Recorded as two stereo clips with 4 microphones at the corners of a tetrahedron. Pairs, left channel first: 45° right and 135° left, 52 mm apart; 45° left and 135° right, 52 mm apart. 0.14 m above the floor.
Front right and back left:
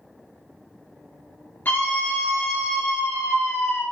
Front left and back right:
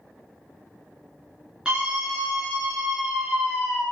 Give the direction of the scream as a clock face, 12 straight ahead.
2 o'clock.